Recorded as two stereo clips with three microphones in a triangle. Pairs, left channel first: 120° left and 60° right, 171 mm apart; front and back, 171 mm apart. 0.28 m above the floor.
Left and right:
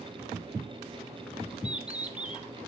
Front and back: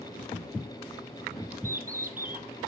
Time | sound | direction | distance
1.6 | a bird | 145° right | 1.8 m